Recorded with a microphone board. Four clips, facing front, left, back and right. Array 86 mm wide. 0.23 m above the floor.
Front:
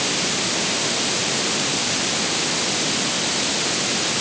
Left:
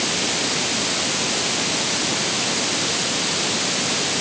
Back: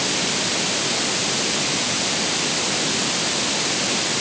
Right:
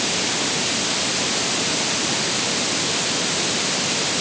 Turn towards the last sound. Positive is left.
No sound to turn to.